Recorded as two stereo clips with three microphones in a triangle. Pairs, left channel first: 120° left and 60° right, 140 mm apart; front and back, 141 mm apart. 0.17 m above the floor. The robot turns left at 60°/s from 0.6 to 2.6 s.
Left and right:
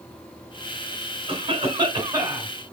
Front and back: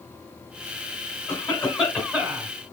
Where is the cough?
55° right, 1.9 m; by 2.5 s 130° right, 1.9 m.